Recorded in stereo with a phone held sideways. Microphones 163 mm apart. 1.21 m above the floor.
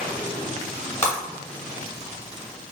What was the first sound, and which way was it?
Breaking glass, 15° left (ahead or behind).